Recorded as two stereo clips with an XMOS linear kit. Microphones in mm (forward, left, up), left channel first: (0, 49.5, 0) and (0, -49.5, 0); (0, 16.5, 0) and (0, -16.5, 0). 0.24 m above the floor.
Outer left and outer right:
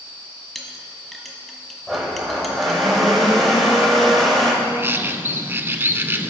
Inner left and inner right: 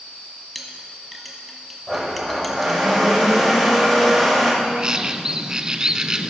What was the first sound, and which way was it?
A clink, centre (ahead or behind).